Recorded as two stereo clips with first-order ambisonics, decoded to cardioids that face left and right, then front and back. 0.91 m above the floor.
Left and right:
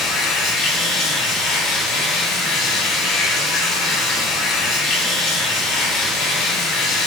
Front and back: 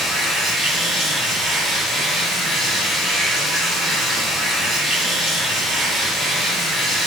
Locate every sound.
0.0 s running water: 90° left, 0.8 m